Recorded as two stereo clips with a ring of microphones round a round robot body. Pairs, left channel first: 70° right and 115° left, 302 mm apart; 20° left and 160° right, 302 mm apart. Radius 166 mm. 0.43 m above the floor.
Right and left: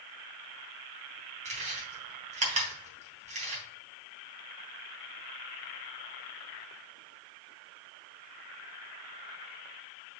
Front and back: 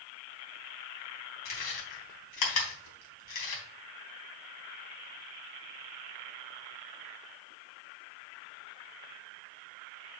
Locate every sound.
1.4 s chewing: 45° left, 3.5 m